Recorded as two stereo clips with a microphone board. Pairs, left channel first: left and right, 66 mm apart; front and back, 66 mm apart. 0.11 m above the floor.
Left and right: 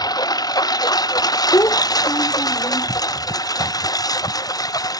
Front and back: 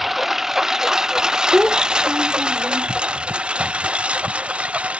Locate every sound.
0.0 s a lawn mower: 90° left; by 5.0 s 110° left
1.5 s a child speaking: 105° left